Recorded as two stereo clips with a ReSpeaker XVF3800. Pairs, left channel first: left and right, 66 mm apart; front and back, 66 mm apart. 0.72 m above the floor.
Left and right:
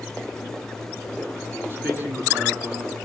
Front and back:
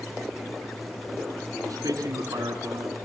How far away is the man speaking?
About 7 m.